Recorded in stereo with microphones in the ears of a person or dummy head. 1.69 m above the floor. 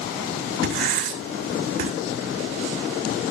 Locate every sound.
0.6 s writing: 60° right (ahead or behind), 2.5 m